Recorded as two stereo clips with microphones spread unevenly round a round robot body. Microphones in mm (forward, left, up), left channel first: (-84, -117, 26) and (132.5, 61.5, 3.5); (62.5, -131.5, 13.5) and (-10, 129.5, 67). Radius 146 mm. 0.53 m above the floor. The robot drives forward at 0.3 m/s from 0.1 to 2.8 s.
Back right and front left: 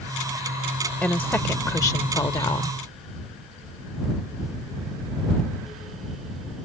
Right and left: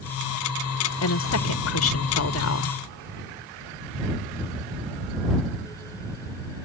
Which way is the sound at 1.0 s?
55° right.